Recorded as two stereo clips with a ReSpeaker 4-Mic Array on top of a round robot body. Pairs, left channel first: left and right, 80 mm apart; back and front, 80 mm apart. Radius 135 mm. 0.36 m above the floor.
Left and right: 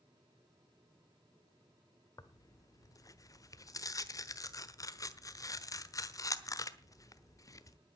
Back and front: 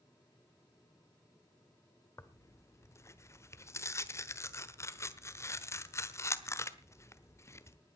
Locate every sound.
2.2 s tearing paper: 130° left, 1.3 m